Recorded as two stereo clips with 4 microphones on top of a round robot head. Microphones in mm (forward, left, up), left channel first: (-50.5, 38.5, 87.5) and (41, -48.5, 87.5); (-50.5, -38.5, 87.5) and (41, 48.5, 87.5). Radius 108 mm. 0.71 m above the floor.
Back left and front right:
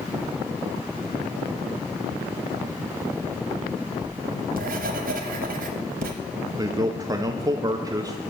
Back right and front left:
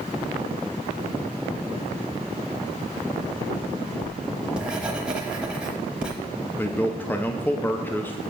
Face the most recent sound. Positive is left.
turn(degrees=-75)